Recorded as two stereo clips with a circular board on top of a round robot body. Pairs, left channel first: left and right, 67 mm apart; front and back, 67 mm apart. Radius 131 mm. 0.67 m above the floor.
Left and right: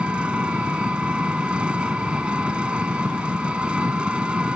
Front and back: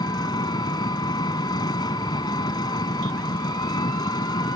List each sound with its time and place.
0.0 s an engine running: 15° right